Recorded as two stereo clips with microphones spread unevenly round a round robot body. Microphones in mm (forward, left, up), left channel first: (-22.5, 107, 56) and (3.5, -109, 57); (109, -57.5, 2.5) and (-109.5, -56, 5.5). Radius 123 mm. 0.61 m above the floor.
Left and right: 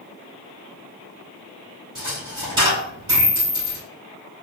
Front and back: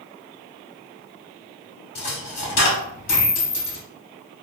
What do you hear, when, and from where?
1.9 s a dropped coin: 10° right, 1.8 m